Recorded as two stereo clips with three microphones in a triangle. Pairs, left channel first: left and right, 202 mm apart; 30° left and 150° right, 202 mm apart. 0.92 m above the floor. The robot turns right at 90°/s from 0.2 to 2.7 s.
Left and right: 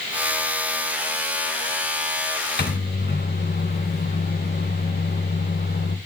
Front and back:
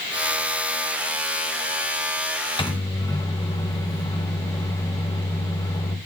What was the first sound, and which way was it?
A microwave, 85° left.